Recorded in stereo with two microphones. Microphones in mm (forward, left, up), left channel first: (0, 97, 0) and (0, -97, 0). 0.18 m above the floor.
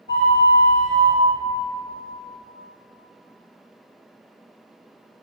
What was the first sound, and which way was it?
A flute, 70° left (ahead or behind).